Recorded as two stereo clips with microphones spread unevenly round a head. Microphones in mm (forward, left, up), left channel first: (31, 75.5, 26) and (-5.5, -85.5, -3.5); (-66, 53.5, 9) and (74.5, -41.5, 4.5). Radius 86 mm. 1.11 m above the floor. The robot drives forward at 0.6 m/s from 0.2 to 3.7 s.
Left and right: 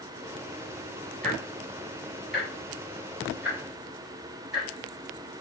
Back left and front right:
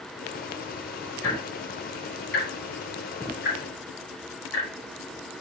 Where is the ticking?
165° left, 3.5 m; by 4.7 s 170° left, 5 m.